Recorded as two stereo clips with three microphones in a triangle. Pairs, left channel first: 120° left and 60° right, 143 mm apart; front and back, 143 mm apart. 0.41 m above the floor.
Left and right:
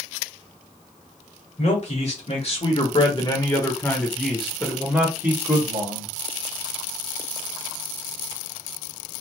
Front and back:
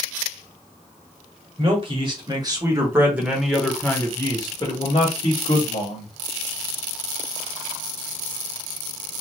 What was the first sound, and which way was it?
A man speaking, 140° left.